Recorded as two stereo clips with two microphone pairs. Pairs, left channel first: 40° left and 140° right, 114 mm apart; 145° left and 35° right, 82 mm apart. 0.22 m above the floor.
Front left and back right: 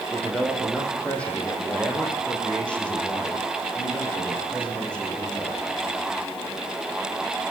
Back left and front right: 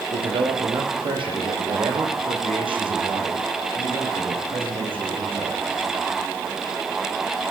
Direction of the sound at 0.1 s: 40° right.